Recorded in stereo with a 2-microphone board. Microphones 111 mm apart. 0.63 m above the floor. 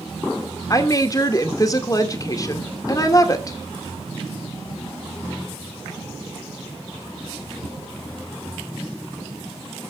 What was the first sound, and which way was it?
A woman speaking, 35° left (ahead or behind).